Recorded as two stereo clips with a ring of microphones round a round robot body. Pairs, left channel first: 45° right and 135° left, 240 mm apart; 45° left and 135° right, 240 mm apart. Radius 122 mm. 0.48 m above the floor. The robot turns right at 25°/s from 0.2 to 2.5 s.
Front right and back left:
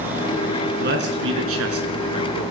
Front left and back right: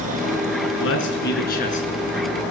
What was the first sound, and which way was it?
A man speaking, 80° left.